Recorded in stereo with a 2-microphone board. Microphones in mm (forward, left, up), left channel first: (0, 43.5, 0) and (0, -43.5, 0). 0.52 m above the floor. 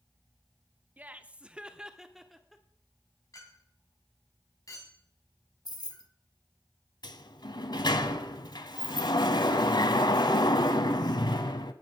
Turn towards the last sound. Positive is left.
turn(degrees=60)  # may be behind; listen again after turning